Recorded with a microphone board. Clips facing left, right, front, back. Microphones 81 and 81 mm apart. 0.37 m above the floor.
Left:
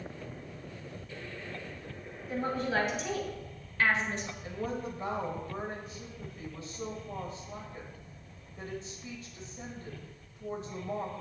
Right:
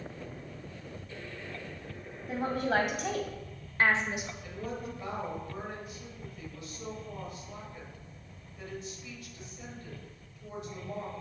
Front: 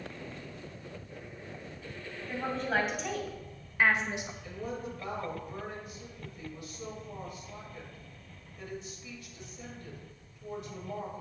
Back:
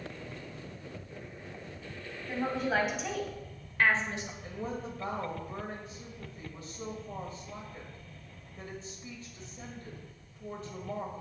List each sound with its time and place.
2.3 s a woman speaking: 95° right, 2.5 m; by 4.3 s 10° right, 1.1 m
4.4 s a woman speaking: 140° left, 1.7 m